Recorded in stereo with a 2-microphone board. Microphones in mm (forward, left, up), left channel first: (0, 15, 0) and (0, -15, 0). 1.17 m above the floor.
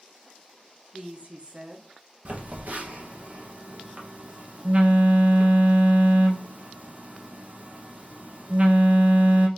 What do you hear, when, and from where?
0.9 s a woman speaking: 45° right (ahead or behind), 0.8 m
2.2 s a phone buzzing: 55° right (ahead or behind), 0.6 m